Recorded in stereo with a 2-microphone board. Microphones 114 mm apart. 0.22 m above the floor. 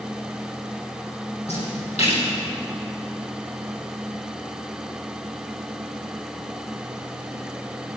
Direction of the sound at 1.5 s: 70° left (ahead or behind).